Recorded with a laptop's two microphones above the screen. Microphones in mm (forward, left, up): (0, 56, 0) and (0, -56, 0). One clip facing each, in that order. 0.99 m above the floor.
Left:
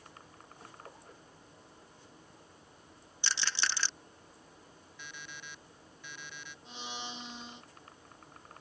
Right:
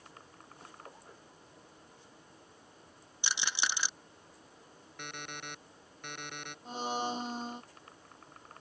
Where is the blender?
45° right (ahead or behind).